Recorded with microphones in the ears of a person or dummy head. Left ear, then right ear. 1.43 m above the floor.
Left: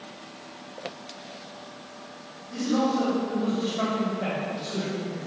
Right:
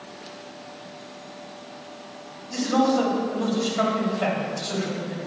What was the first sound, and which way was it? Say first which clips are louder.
A man speaking: right 4 dB; 60° right (ahead or behind).